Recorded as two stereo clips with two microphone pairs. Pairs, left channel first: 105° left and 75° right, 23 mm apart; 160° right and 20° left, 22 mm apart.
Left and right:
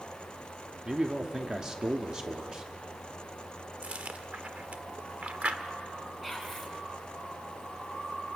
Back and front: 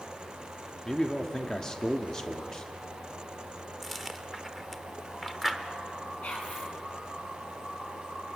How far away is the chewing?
About 1.2 m.